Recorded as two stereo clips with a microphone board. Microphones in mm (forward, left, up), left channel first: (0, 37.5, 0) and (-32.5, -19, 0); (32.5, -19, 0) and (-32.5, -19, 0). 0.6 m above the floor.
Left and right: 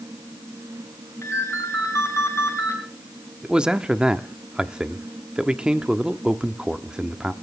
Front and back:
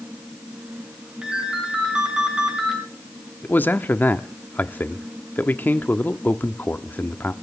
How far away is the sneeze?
I don't hear a sneeze.